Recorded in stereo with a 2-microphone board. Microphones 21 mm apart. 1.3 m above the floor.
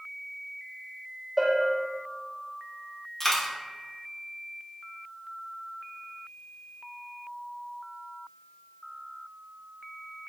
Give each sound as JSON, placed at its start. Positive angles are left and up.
{"t": 1.4, "sound": "a bell", "side_deg": -15, "distance_m": 1.2}
{"t": 3.2, "sound": "a dropped coin", "side_deg": 25, "distance_m": 1.1}